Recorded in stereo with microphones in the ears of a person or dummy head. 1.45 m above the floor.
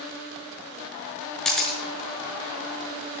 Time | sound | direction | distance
1.4 | a camera shutter | 5° left (ahead or behind) | 1.3 m